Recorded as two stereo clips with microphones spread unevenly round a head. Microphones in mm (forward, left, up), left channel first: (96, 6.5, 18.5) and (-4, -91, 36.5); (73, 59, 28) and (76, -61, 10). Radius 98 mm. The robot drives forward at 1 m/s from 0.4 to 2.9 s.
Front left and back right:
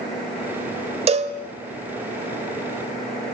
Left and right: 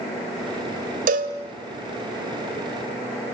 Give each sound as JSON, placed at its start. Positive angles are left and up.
{"t": 1.1, "sound": "a cowbell", "azimuth_deg": -95, "distance_m": 1.8}